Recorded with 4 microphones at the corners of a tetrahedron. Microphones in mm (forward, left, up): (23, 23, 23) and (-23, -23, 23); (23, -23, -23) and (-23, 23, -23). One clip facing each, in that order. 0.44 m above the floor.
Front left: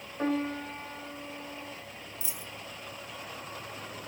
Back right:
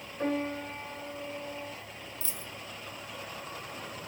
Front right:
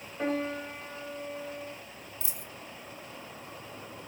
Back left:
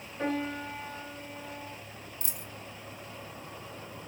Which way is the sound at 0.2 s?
20° left.